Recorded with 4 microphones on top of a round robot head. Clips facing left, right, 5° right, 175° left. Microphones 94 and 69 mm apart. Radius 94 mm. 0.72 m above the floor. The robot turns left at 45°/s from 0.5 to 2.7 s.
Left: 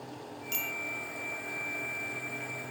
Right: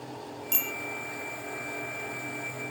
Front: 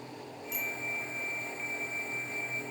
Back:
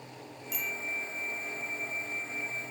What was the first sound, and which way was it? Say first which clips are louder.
A bicycle bell: right 1 dB, even; 130° right.